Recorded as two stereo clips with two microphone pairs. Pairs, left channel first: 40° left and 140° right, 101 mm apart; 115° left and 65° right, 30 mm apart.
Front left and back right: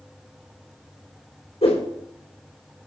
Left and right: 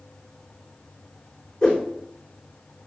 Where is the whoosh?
50° left, 4 m.